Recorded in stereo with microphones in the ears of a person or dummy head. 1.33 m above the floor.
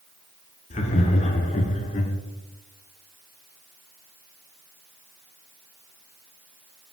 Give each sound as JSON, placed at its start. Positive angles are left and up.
{"t": 0.7, "sound": "laughter", "side_deg": 30, "distance_m": 0.5}